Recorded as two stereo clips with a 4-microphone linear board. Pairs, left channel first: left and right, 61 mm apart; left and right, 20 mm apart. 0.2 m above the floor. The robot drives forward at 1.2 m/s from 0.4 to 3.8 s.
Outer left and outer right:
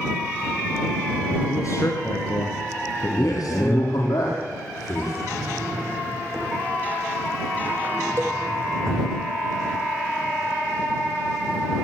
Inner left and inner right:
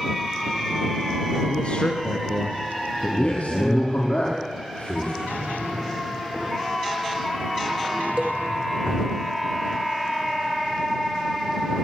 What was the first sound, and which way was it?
A man speaking, 60° left (ahead or behind).